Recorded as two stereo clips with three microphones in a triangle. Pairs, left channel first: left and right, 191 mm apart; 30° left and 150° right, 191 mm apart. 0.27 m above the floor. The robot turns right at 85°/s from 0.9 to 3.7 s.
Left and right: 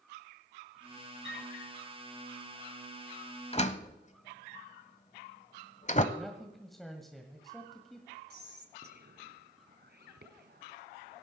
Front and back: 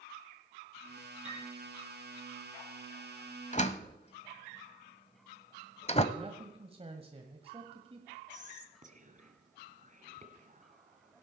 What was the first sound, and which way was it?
A piano, 95° right.